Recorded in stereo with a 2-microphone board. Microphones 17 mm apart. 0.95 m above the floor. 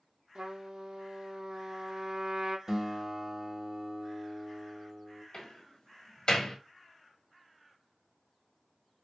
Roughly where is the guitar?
Right.